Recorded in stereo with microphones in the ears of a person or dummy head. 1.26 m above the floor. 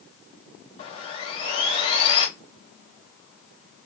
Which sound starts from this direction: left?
Sawing, at 0.8 s.